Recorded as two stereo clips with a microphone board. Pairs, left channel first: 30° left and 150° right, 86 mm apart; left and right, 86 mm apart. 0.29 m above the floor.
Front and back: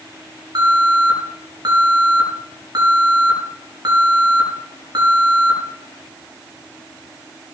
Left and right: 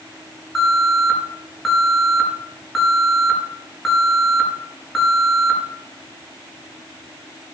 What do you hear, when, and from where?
0.6 s an alarm: 175° left, 6 m